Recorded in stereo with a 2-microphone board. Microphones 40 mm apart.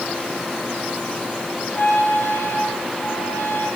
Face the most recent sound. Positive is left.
turn(degrees=80)